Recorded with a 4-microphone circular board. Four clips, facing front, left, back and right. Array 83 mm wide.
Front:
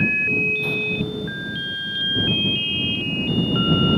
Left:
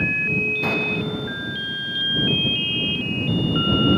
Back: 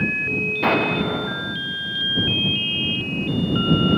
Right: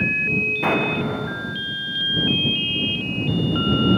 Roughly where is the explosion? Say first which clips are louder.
Right 3 dB, back 5 dB; behind right.